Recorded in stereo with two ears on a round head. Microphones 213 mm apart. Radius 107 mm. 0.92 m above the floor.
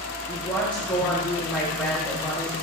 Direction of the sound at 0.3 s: 5° left (ahead or behind).